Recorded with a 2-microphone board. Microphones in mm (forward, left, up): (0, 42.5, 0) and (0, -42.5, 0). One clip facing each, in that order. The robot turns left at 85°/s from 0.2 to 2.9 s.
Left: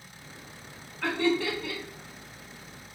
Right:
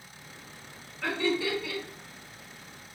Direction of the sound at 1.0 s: 65° left (ahead or behind).